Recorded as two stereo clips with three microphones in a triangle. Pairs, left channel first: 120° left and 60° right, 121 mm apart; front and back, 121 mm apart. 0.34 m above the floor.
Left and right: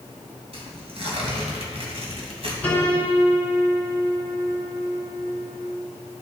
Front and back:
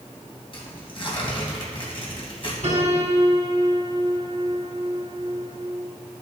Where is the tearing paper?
35° right, 2.5 m.